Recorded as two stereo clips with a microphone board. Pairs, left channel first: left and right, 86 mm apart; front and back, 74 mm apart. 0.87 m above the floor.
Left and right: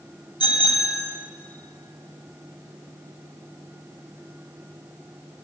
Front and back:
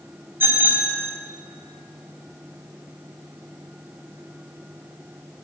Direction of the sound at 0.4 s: 120° left.